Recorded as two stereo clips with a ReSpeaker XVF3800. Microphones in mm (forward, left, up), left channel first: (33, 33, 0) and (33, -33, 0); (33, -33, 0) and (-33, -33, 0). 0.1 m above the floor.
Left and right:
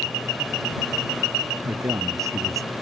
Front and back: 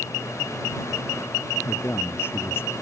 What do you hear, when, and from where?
1.6 s a man speaking: 55° right